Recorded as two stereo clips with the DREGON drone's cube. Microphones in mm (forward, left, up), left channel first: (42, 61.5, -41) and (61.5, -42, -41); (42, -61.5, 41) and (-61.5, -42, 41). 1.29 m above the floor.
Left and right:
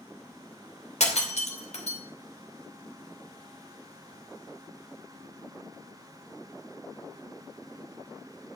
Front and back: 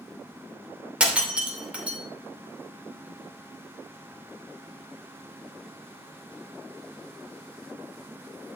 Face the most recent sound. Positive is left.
turn(degrees=90)